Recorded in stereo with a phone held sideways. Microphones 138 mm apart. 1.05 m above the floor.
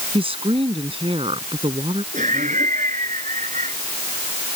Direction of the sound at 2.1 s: 60° right (ahead or behind).